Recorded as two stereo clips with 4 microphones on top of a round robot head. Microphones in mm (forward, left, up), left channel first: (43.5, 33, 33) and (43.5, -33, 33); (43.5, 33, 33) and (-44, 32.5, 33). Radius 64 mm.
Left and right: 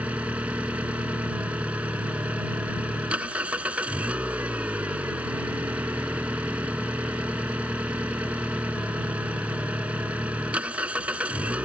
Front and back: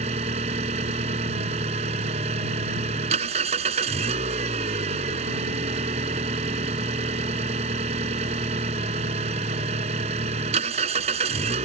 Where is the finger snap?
I don't hear a finger snap.